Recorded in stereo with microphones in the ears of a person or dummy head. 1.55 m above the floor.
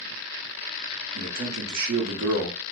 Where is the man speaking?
50° right (ahead or behind), 0.8 m.